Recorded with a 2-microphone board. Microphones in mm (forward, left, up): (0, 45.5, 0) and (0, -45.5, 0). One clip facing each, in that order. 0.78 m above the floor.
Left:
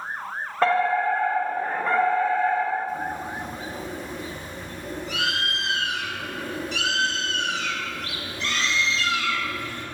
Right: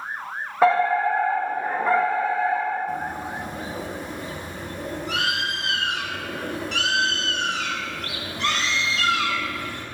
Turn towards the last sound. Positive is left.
turn(degrees=-70)  # may be behind; listen again after turning